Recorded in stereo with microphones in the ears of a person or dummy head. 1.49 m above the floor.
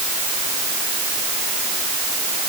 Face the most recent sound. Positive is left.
No sound to turn to.